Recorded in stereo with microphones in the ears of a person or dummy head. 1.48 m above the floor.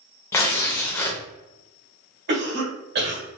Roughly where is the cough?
Right.